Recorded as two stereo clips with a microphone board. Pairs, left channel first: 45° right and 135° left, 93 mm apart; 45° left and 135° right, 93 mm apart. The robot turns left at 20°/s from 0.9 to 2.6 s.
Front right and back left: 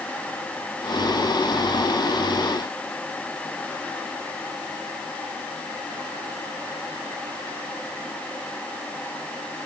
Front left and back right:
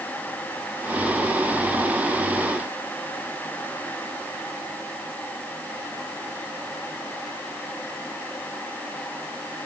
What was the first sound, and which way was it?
Only background noise.